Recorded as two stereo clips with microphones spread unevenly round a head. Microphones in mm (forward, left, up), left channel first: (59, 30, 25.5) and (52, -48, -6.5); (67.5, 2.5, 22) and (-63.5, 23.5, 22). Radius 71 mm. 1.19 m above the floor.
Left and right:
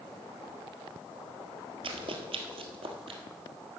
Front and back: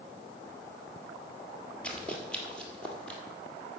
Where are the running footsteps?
90° right, 1.7 m.